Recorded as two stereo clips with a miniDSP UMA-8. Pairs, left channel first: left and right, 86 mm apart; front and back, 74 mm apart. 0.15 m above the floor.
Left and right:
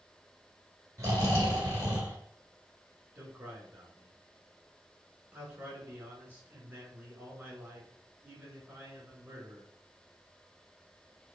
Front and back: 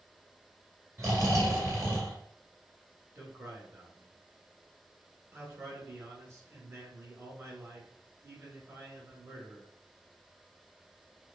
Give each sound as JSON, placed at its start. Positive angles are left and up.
{"t": 1.0, "sound": "snoring", "azimuth_deg": -135, "distance_m": 1.8}
{"t": 3.1, "sound": "a man speaking", "azimuth_deg": -150, "distance_m": 1.7}